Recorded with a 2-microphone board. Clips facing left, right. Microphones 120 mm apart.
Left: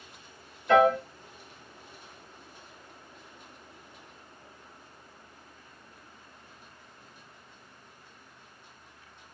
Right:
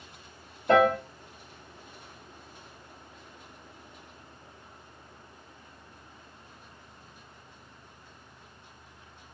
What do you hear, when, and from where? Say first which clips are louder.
0.7 s a piano: left 1 dB; 40° right (ahead or behind), 1.4 m